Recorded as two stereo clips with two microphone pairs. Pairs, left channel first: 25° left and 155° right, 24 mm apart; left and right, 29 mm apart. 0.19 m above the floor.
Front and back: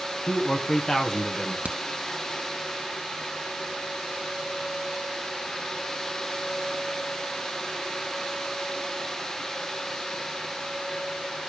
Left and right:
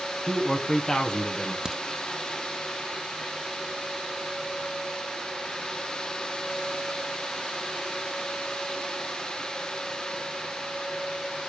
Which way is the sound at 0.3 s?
30° left.